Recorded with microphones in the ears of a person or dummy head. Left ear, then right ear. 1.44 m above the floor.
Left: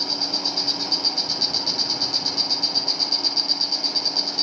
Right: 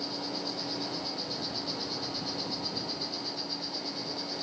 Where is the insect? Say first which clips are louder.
Left 12 dB; 45° left (ahead or behind), 9 m.